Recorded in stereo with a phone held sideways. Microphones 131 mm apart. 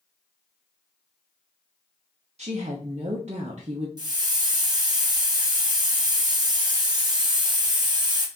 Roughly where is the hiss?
Right.